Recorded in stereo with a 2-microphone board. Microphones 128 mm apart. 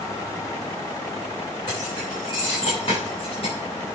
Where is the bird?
No bird in this recording.